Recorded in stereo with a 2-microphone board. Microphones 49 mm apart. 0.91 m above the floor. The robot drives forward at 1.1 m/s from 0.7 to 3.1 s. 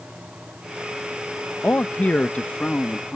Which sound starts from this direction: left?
A man speaking, at 1.6 s.